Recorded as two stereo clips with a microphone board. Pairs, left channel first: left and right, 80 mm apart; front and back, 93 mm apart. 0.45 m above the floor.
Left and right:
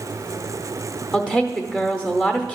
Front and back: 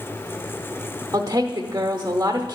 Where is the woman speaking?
160° right, 0.9 m.